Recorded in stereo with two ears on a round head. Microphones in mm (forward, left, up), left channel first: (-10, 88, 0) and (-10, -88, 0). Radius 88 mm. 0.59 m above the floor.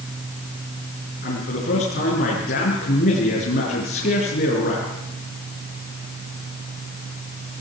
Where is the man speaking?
50° left (ahead or behind), 6.5 m.